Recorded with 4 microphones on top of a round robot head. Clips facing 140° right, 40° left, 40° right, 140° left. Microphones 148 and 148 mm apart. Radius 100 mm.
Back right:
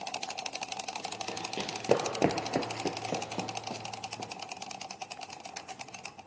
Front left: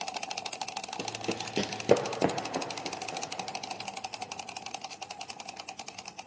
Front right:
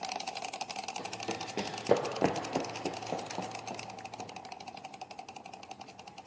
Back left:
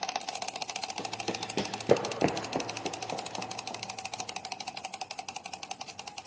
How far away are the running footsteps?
About 1.1 m.